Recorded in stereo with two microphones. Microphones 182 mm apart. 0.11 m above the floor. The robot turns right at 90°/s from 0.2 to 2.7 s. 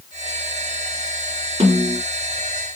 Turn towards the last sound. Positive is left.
turn(degrees=-10)